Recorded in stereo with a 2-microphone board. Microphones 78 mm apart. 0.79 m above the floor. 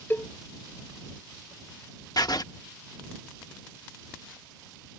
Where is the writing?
55° left (ahead or behind).